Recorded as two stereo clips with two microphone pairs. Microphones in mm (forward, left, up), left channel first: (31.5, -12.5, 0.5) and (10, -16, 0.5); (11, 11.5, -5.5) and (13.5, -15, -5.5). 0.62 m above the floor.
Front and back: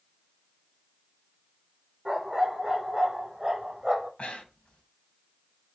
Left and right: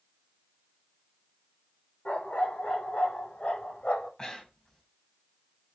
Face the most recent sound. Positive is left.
turn(degrees=35)